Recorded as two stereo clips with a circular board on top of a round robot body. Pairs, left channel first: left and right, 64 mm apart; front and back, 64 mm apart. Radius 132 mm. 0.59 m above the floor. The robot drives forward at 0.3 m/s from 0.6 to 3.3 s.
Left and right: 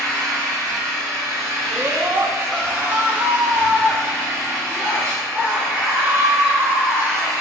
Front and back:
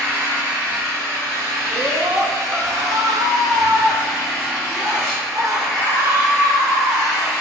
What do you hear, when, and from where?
0.0 s an engine running: 120° right, 1.4 m; by 7.4 s 140° right, 1.9 m
1.7 s a scream: 140° right, 0.8 m; by 7.3 s 160° right, 1.1 m